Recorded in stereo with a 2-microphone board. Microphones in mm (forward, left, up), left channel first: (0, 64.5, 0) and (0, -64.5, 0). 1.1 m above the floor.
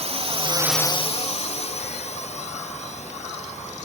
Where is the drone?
65° right (ahead or behind); by 3.9 s 70° left (ahead or behind).